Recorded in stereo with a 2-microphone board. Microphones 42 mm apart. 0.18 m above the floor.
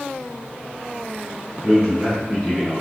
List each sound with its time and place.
1.6 s a man speaking: 10° right (ahead or behind), 1.3 m; by 2.8 s 15° left (ahead or behind), 1.5 m